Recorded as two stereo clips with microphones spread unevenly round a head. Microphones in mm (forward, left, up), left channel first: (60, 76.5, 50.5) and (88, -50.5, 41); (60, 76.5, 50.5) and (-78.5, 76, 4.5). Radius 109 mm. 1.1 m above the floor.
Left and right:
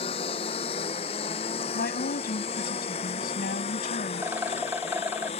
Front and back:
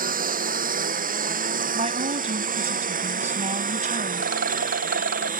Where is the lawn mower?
165° left; by 5.4 s 160° left.